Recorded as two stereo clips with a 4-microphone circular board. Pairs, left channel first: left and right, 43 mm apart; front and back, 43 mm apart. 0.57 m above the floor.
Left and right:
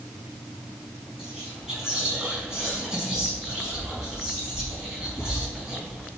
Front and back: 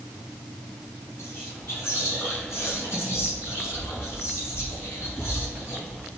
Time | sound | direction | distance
1.2 | whispering | 15° right | 4.5 m